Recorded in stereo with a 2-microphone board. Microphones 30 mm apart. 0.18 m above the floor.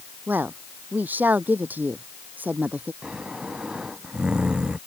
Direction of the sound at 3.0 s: 30° right (ahead or behind).